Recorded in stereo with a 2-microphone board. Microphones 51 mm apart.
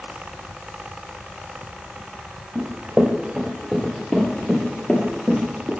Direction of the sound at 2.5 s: 20° right (ahead or behind).